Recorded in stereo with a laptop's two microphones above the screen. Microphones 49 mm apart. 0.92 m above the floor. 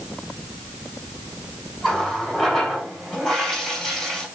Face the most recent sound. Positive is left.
turn(degrees=10)  # may be behind; listen again after turning